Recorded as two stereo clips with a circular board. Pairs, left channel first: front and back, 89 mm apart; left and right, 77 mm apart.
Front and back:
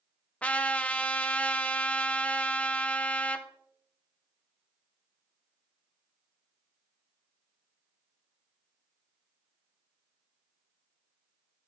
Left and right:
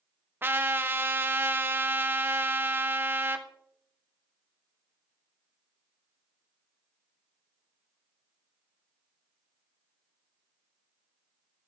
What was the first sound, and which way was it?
A trumpet, 60° right.